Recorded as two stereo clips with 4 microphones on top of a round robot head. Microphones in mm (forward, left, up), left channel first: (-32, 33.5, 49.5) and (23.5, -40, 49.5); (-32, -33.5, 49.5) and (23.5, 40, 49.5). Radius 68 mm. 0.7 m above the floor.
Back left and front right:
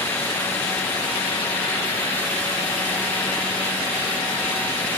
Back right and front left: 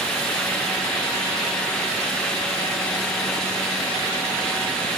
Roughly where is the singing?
No singing in this recording.